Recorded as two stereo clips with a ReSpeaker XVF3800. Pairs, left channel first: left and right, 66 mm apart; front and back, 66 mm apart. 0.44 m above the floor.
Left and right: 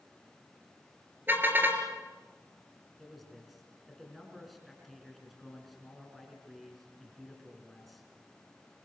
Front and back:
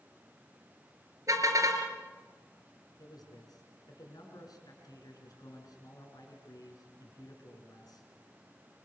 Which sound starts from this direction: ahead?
A man speaking, at 3.0 s.